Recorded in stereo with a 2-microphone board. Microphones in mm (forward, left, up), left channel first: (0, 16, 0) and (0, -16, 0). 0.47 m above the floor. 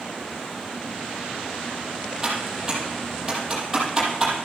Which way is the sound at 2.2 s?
15° right (ahead or behind).